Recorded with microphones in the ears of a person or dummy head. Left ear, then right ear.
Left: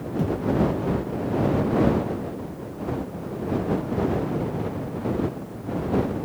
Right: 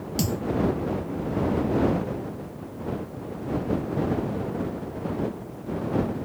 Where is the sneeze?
No sneeze in this recording.